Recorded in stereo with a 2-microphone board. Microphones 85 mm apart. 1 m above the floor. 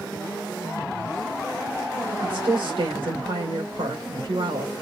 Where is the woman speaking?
85° right, 3.5 m.